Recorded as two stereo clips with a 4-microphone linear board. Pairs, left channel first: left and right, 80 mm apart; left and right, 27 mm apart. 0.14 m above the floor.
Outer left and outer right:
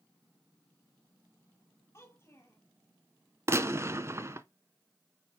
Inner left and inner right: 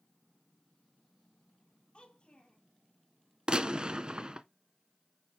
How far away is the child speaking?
About 3 m.